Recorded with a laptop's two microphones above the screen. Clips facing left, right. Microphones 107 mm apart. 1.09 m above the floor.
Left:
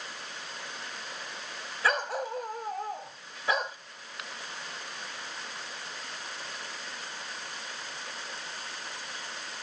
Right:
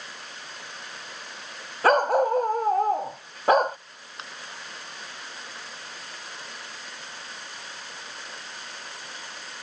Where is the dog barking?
50° right (ahead or behind).